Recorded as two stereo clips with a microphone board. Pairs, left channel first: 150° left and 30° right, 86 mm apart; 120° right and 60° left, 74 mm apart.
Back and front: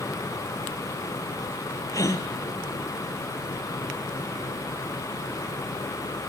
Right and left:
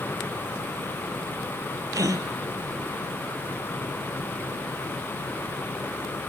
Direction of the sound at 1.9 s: 100° left.